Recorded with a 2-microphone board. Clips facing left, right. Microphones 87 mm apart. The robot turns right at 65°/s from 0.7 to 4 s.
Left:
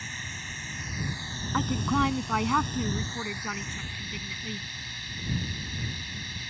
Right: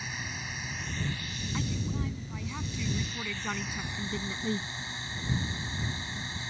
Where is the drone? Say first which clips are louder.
Right 1 dB; 10° right; by 6.5 s 155° right.